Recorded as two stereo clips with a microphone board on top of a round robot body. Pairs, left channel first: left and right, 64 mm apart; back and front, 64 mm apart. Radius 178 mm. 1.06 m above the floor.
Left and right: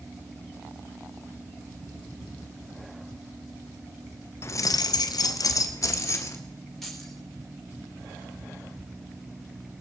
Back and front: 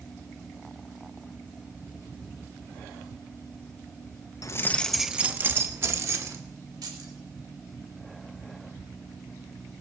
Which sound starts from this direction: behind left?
Keys jangling, at 4.4 s.